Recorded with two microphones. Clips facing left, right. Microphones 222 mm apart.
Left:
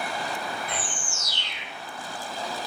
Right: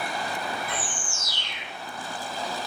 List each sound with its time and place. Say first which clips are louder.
0.7 s a bird: even; 50° right (ahead or behind), 1.5 m